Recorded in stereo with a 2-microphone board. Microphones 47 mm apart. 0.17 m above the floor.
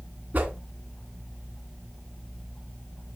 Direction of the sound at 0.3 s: 40° right (ahead or behind).